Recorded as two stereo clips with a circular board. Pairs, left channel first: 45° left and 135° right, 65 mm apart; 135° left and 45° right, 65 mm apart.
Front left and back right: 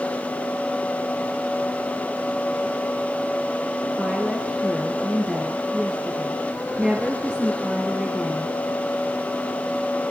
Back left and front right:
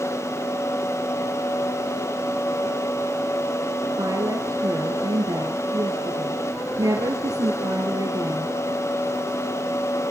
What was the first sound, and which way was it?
A woman speaking, 55° right.